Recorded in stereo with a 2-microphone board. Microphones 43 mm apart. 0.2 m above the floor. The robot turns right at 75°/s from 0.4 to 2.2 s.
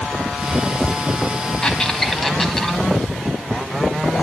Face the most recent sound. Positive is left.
turn(degrees=5)  # may be behind; listen again after turning